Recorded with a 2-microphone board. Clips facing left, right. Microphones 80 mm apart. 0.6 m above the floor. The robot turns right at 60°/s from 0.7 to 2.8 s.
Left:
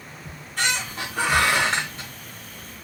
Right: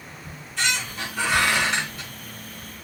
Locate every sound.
0.2 s a squeak: 70° left, 1.0 m; by 2.1 s 155° left, 1.0 m